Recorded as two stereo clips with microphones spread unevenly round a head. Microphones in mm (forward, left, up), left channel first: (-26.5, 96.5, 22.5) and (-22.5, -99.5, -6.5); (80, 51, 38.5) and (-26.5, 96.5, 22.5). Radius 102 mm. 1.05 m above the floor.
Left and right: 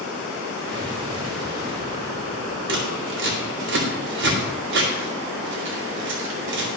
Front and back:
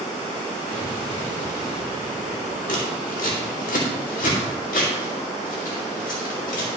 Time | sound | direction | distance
0.7 | an explosion | 20° right | 3 m
2.7 | scissors | 55° right | 2 m